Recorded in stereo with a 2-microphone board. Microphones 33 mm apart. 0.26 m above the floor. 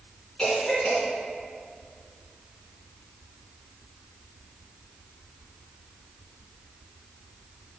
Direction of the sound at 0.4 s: 25° left (ahead or behind).